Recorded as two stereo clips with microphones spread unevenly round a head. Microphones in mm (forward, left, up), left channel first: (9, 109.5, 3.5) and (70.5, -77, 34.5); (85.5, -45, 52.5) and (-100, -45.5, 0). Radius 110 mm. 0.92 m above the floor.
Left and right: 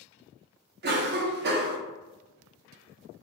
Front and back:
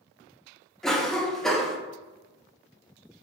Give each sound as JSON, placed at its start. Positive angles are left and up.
{"t": 0.8, "sound": "a cough", "azimuth_deg": -100, "distance_m": 0.5}